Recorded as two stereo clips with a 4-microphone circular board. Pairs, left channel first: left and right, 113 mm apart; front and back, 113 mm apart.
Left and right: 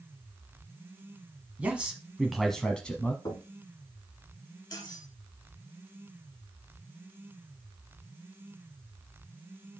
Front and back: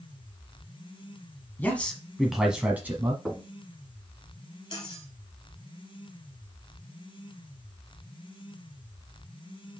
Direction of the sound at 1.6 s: 40° right.